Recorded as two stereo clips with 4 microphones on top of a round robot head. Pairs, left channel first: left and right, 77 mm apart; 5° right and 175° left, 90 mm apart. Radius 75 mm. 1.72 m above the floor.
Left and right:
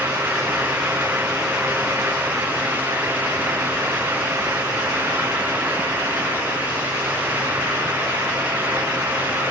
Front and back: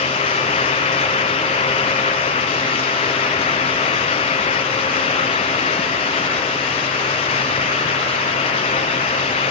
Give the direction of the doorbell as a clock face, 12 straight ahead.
No doorbell in this recording.